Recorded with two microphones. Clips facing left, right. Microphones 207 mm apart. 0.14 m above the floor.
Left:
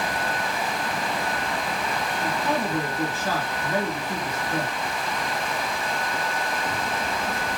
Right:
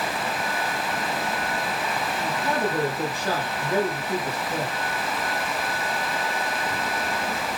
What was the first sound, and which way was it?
A man speaking, 15° right (ahead or behind).